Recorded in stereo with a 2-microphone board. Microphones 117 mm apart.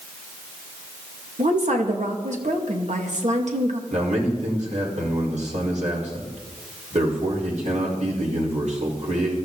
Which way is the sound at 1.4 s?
80° right.